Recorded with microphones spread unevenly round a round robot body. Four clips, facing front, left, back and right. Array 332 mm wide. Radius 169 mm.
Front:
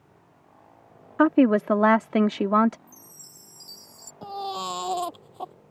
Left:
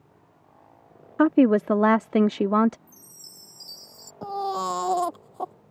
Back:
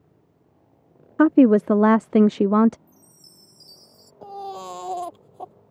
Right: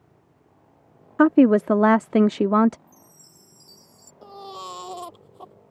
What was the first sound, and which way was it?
A woman speaking, 130° right.